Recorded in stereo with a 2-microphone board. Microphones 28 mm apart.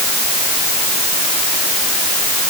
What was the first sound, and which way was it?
Only background noise.